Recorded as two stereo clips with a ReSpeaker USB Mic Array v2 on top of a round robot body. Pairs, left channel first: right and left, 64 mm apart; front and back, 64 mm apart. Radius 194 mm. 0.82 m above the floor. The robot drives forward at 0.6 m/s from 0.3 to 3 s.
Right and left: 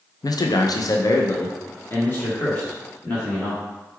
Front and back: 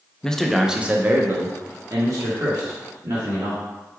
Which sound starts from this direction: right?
A man speaking, at 0.2 s.